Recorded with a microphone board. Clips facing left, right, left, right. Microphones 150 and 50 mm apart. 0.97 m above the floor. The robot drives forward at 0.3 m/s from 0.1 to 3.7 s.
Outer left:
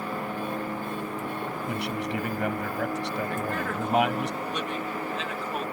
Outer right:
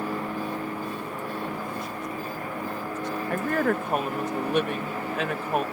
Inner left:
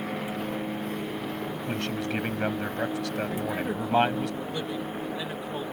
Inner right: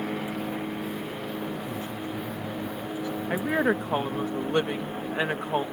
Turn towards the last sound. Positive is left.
turn(degrees=-55)  # may be behind; listen again after turning